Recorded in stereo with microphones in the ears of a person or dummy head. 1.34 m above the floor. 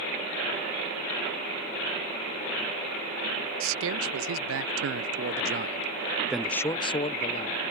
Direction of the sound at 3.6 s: 70° right (ahead or behind).